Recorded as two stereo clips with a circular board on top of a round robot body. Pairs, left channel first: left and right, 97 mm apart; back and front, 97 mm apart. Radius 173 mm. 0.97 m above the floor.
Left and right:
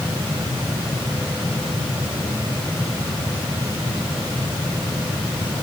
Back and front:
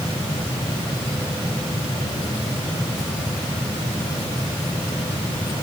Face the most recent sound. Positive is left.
No sound to turn to.